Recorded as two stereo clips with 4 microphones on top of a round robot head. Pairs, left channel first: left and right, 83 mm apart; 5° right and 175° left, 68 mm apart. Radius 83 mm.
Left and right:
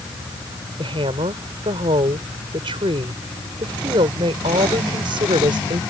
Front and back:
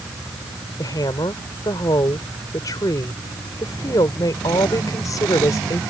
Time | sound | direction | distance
0.8 | a woman speaking | 55° right | ?